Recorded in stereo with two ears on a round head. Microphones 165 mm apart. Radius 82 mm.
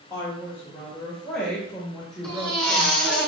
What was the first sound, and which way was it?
A woman speaking, 15° left (ahead or behind).